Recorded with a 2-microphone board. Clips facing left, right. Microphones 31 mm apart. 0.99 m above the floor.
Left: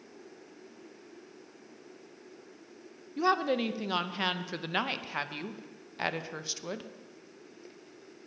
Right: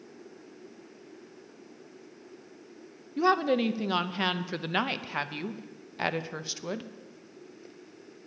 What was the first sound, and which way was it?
A woman speaking, 5° right (ahead or behind).